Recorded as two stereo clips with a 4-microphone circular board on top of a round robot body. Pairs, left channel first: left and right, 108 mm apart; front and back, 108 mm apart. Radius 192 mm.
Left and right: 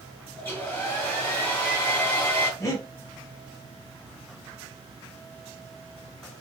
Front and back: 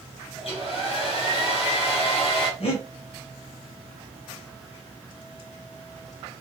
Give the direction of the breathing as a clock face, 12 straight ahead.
11 o'clock.